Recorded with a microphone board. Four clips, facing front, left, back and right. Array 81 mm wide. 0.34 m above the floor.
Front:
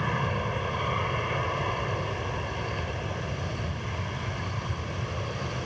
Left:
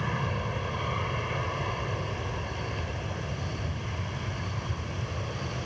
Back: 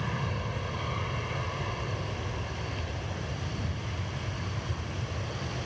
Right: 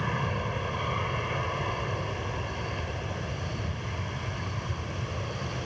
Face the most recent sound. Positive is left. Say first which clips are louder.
# right 1 dB, front 5 dB
turn(degrees=-10)